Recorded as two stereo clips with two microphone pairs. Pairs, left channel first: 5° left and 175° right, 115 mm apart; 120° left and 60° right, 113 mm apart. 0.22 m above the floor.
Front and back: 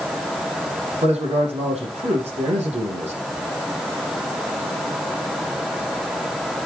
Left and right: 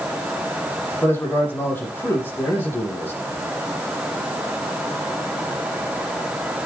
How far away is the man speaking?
About 7.5 m.